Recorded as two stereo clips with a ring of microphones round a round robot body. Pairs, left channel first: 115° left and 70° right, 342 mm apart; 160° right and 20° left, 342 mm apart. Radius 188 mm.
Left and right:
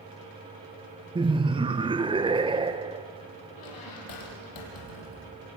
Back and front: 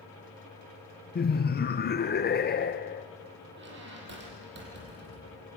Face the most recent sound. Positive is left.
turn(degrees=80)